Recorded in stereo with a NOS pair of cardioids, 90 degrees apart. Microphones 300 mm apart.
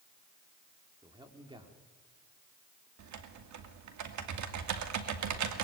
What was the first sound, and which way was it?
A man speaking, 15° right.